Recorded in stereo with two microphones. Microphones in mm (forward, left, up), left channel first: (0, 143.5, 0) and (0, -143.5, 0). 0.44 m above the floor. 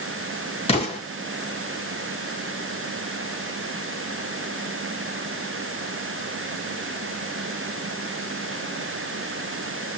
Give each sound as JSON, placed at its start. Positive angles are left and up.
{"t": 0.7, "sound": "an explosion", "side_deg": 20, "distance_m": 3.0}